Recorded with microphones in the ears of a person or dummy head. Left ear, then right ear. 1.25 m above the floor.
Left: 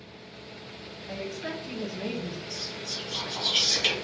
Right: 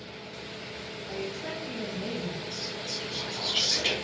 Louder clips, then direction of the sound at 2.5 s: Left 2 dB; 35° left (ahead or behind).